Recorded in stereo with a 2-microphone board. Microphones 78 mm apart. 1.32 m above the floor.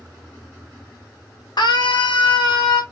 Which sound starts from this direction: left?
A scream, at 1.6 s.